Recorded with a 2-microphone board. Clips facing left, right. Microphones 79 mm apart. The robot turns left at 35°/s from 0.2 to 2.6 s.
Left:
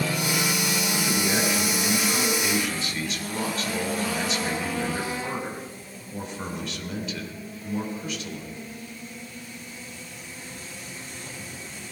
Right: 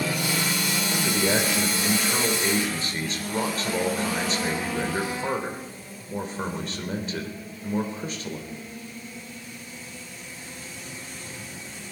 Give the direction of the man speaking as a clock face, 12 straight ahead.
3 o'clock.